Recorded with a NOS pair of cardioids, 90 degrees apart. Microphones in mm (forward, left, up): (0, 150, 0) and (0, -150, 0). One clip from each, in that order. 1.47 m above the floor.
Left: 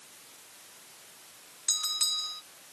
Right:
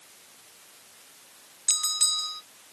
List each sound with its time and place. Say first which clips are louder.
1.7 s a bell: right 3 dB; 25° right